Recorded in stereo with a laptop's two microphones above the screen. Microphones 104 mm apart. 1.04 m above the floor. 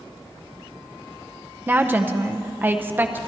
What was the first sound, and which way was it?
A woman speaking, 20° right (ahead or behind).